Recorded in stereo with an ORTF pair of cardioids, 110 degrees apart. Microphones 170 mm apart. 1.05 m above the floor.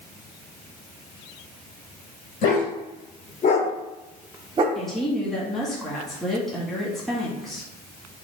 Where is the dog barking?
60° left, 1.9 m; by 4.7 s 65° right, 0.7 m.